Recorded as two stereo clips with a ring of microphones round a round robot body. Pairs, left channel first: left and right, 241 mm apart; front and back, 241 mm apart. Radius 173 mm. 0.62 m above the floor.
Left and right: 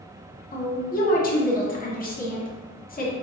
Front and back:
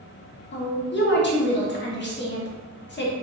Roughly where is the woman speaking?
Ahead left.